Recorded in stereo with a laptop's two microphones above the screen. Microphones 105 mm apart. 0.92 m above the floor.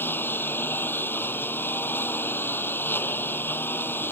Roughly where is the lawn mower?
Left.